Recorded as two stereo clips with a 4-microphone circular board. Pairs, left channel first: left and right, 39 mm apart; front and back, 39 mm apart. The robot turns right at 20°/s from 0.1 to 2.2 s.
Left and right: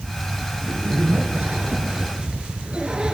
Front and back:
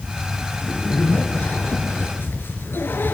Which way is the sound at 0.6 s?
55° right.